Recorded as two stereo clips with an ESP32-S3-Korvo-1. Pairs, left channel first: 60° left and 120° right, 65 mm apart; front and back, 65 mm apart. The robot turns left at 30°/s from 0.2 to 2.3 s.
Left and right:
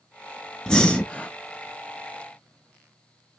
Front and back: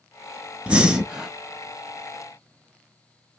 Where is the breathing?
130° left, 0.7 m; by 1.3 s 110° left, 0.7 m.